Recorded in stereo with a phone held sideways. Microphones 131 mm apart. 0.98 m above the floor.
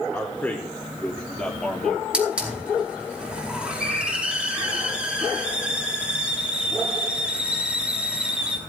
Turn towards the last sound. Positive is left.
turn(degrees=-5)  # may be behind; listen again after turning